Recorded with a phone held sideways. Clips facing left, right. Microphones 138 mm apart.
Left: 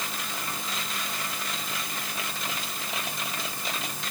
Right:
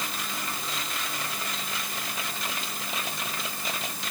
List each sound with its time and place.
Only background noise.